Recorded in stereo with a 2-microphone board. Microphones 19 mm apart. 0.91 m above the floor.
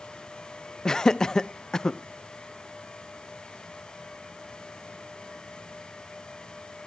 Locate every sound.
0.8 s laughter: 35° left (ahead or behind), 0.5 m